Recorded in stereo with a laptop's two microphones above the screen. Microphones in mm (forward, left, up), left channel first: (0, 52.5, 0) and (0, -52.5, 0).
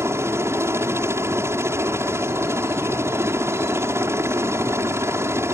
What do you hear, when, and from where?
0.0 s a helicopter: 25° right (ahead or behind)